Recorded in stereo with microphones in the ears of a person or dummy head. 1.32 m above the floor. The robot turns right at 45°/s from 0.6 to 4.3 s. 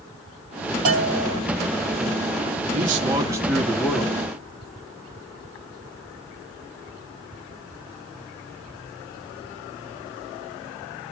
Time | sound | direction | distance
0.8 | a bell | 40° right (ahead or behind) | 1.3 m
2.7 | a man speaking | 40° right | 2 m